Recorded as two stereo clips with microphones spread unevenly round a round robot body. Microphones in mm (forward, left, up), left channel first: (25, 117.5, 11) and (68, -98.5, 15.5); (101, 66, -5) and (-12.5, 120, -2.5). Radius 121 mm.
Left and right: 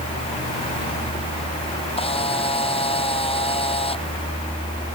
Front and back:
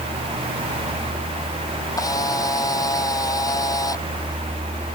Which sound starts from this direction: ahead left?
A camera shutter, at 2.0 s.